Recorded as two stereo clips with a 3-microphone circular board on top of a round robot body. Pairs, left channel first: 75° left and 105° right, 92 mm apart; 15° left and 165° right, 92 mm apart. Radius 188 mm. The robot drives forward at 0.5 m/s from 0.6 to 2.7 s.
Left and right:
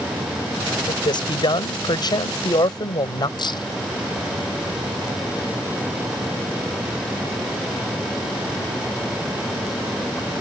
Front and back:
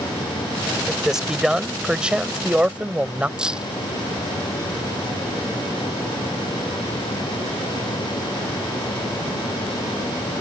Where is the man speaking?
110° left; by 3.3 s 120° left.